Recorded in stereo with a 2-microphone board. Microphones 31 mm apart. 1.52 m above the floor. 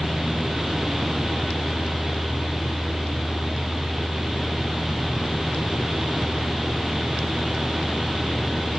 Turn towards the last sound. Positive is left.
No sound to turn to.